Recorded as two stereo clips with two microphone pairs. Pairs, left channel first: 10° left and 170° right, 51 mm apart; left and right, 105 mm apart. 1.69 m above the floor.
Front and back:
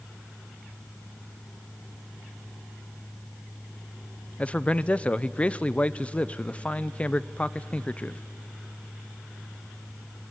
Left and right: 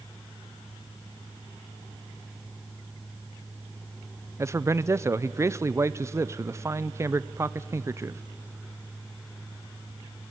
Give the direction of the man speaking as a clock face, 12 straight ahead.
2 o'clock.